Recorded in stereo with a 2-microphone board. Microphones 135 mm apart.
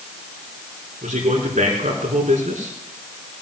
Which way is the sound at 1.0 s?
70° right (ahead or behind).